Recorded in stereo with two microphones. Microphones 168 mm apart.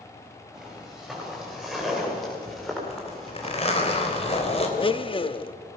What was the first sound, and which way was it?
Footsteps, centre (ahead or behind).